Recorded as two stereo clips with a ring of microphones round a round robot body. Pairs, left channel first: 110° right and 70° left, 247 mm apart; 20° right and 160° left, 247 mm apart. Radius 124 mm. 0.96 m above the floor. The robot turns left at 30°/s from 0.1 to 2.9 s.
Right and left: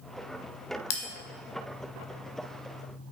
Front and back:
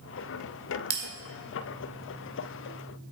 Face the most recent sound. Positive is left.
turn(degrees=155)